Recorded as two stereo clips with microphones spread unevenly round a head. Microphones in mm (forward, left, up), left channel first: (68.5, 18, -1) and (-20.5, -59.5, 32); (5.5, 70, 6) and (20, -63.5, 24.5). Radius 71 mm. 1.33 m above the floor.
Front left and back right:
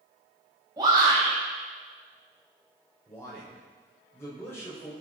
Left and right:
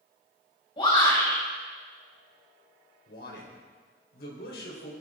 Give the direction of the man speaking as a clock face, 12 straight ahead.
8 o'clock.